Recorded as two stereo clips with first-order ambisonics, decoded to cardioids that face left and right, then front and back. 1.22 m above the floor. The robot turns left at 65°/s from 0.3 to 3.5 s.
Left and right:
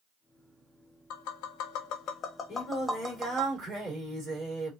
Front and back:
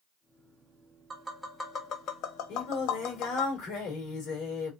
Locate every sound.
1.1 s tapping: 110° left, 0.7 m; by 3.5 s 45° right, 0.7 m
2.5 s singing: 25° left, 2.5 m; by 4.7 s 40° right, 2.5 m